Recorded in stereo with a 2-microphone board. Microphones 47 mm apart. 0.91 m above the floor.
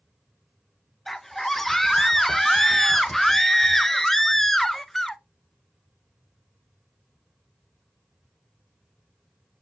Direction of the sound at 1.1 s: 5° left (ahead or behind).